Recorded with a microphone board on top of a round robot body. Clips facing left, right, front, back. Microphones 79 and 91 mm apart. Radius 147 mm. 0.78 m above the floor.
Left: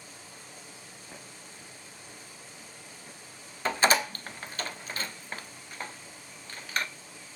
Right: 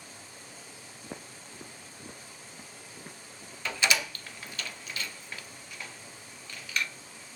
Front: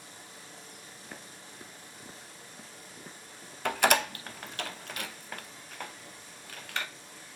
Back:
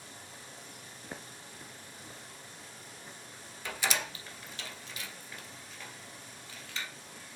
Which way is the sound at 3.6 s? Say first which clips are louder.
Left 5 dB, front 9 dB; 35° left.